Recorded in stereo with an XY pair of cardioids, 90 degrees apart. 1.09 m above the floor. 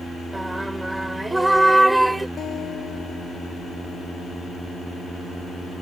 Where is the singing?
10° right.